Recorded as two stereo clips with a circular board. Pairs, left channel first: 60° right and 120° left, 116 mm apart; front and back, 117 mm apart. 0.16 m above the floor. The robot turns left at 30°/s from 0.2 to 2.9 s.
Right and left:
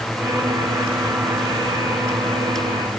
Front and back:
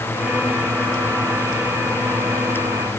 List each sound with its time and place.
Only background noise.